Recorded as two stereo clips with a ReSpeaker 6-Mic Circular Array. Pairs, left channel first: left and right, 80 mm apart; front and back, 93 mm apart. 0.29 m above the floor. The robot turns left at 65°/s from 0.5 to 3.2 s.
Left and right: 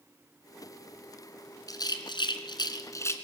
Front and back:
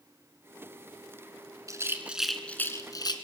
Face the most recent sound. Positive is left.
turn(degrees=30)